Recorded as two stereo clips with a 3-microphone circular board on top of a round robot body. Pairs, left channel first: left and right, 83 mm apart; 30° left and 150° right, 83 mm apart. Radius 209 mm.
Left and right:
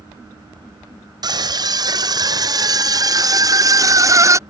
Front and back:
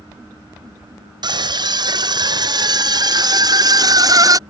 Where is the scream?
125° right; by 4.4 s 130° right.